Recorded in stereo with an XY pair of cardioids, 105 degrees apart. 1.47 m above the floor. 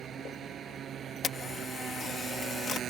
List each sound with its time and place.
0.0 s a motorcycle: 55° right
1.2 s a camera shutter: 45° left